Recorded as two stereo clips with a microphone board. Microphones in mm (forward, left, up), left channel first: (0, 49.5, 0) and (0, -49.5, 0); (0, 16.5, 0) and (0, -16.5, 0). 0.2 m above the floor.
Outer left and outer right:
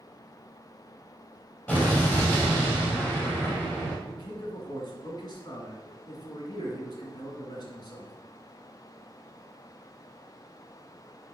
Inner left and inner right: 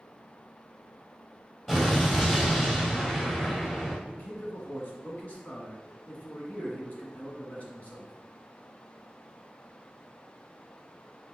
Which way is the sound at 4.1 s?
50° left (ahead or behind).